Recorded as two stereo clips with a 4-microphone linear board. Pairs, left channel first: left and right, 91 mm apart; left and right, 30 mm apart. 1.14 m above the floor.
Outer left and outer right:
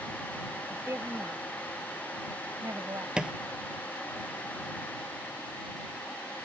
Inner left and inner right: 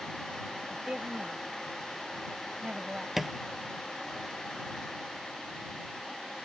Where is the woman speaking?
30° right (ahead or behind); by 3.1 s 40° right (ahead or behind).